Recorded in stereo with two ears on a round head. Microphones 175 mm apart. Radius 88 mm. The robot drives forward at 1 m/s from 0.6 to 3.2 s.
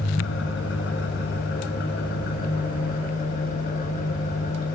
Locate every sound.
0.0 s an engine running: 70° left (ahead or behind), 3.5 m; by 4.8 s 45° left (ahead or behind), 5 m